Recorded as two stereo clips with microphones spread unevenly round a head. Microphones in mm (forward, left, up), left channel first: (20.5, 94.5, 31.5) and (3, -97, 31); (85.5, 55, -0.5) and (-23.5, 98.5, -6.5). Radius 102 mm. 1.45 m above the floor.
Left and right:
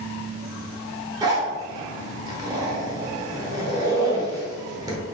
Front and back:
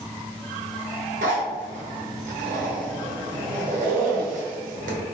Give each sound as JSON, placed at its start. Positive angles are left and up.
{"t": 1.2, "sound": "a zipper", "azimuth_deg": -165, "distance_m": 0.9}